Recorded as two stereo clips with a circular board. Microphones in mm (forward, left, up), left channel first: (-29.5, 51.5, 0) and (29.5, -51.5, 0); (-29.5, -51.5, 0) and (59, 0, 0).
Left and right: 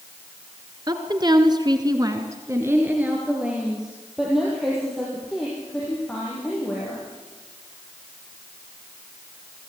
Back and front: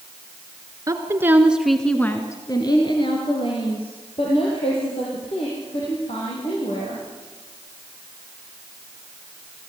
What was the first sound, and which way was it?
A woman speaking, 15° right.